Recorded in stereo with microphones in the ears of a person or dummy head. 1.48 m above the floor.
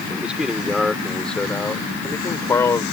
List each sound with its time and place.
0.1 s a man speaking: 10° right (ahead or behind); by 2.8 s 15° left (ahead or behind)